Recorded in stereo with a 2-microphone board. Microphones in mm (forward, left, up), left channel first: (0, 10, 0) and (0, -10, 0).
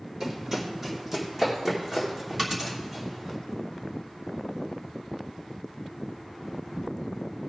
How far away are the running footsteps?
About 3 m.